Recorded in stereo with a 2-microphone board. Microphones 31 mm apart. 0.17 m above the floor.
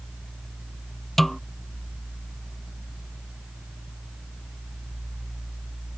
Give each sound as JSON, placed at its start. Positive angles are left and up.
{"t": 1.2, "sound": "a snare drum", "side_deg": 5}